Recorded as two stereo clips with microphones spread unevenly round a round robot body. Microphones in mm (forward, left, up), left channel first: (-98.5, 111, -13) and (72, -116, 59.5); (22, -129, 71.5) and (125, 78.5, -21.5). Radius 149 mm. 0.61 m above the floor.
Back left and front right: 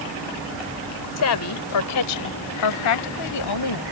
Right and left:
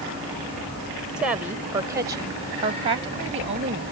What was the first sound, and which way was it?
A woman speaking, 140° left.